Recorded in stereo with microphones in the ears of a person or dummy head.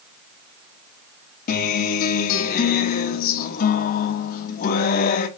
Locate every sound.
1.5 s a guitar: 50° left (ahead or behind), 1.1 m